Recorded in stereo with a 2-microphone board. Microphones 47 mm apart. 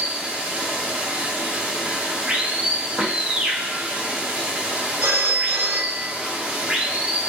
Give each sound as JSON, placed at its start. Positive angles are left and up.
{"t": 0.0, "sound": "running water", "side_deg": -25, "distance_m": 0.7}
{"t": 3.0, "sound": "knocking", "side_deg": -40, "distance_m": 0.9}
{"t": 5.0, "sound": "a phone ringing", "side_deg": -80, "distance_m": 1.1}